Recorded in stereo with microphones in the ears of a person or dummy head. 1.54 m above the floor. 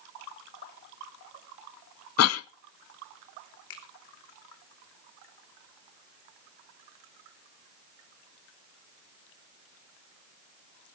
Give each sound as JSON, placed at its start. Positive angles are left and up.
{"t": 2.2, "sound": "a cough", "side_deg": 80, "distance_m": 0.5}
{"t": 3.7, "sound": "a finger snap", "side_deg": 80, "distance_m": 3.0}